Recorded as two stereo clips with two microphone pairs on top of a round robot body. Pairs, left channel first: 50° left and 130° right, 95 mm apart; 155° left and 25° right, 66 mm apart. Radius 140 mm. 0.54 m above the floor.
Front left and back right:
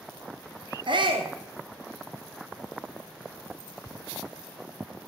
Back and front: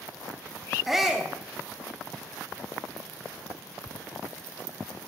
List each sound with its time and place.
0.9 s a shout: 110° right, 1.6 m